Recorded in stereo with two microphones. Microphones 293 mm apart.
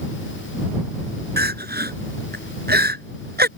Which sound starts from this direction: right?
Crying, at 1.4 s.